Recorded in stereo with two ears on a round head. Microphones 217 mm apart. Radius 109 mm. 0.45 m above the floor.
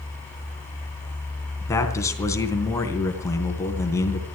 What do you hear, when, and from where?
1.6 s a man speaking: 15° left (ahead or behind), 3.5 m